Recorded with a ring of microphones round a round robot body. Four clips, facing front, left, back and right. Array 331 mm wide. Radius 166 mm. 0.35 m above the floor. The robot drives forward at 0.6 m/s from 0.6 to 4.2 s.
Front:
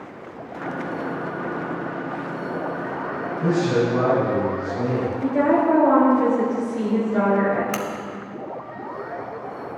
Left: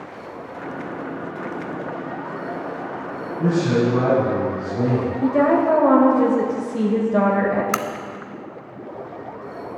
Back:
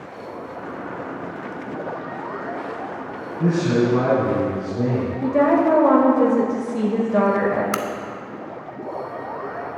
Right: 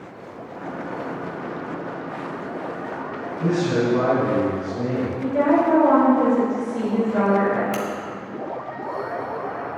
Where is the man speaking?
145° left, 2.5 m; by 5.1 s 150° left, 3 m.